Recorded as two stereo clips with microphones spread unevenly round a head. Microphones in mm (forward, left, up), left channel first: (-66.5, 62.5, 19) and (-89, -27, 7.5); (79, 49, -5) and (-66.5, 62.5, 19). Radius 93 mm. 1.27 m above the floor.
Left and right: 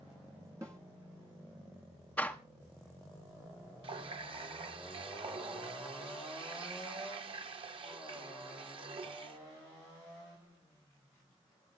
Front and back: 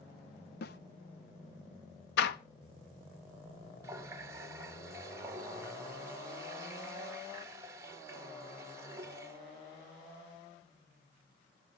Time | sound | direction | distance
0.6 | a snare drum | 30° right | 0.6 m
2.2 | a door slam | 5° right | 0.9 m
3.8 | a running tap | 120° right | 0.7 m